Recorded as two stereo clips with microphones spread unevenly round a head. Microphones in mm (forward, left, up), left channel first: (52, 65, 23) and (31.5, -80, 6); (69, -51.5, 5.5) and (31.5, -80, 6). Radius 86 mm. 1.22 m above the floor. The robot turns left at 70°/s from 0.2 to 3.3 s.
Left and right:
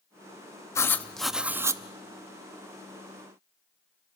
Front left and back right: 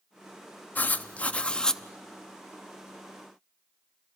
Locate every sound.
0.8 s writing: 35° left, 0.7 m; by 1.8 s 40° right, 0.7 m